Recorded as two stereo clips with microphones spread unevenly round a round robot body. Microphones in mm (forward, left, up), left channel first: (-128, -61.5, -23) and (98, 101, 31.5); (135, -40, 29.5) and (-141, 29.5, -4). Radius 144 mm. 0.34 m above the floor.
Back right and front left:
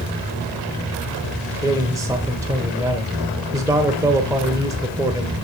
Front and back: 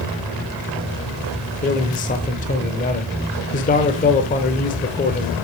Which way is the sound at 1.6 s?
55° right.